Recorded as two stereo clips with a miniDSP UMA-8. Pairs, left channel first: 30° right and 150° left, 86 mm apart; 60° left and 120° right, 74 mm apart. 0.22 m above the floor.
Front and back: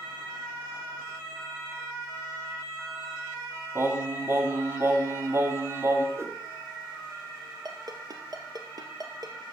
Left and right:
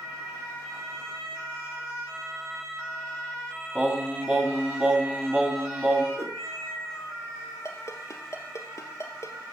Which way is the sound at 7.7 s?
110° left.